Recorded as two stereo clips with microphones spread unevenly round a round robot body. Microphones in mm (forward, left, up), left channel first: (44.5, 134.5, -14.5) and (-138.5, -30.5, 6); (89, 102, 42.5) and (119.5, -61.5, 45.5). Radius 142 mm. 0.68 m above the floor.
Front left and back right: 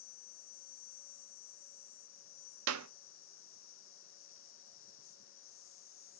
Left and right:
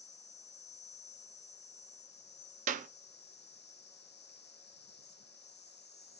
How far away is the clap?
About 0.6 m.